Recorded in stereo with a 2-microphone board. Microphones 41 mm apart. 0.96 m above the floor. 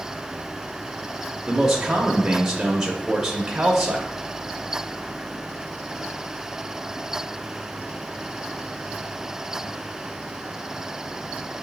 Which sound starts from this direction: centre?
A man speaking, at 1.5 s.